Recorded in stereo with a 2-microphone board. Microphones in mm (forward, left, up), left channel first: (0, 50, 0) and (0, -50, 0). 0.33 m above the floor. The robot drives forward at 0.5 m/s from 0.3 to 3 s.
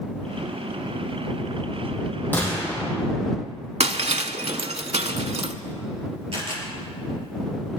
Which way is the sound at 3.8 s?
80° right.